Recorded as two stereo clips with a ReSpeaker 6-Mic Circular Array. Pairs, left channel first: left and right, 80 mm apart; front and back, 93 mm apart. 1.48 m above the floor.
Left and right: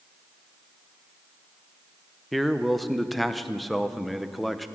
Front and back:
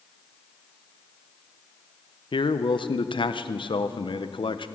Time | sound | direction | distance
2.3 | a man speaking | straight ahead | 0.6 m